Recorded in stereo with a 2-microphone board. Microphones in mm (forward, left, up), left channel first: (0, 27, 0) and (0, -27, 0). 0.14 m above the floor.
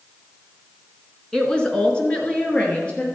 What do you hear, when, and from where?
1.3 s a woman speaking: 15° left (ahead or behind), 1.6 m; by 3.0 s 20° left (ahead or behind), 3 m